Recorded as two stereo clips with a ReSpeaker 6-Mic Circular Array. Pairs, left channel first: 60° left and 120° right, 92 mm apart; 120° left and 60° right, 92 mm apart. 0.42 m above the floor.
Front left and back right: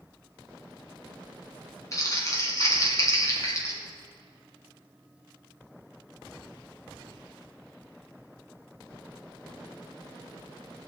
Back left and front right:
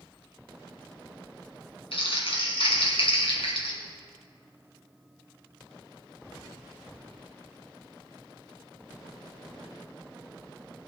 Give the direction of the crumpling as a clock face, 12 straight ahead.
8 o'clock.